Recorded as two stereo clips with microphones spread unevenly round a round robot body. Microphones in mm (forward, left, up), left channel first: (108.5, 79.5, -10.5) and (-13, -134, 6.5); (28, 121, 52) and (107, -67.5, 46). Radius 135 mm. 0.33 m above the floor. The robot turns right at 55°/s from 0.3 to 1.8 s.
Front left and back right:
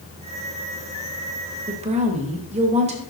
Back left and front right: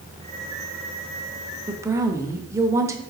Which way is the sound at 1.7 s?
115° right.